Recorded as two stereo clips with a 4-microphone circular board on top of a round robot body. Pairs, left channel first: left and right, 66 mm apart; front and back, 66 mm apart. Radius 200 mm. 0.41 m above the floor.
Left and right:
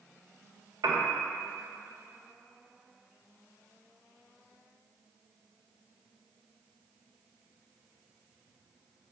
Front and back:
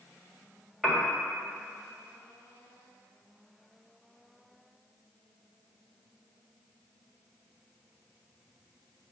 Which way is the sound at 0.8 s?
95° right.